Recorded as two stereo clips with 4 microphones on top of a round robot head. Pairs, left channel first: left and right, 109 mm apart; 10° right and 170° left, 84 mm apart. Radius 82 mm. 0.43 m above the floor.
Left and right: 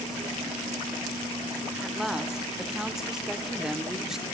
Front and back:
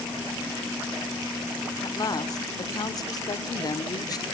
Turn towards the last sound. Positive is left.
turn(degrees=-5)